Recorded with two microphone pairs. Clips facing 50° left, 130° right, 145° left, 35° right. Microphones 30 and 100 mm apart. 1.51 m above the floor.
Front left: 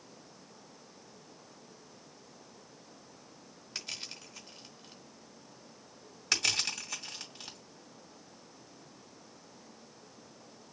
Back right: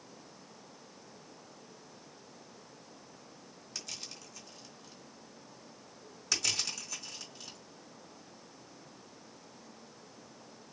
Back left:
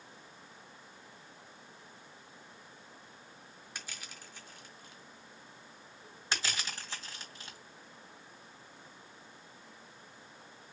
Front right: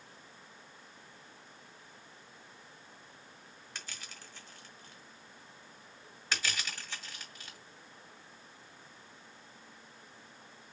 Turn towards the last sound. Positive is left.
turn(degrees=85)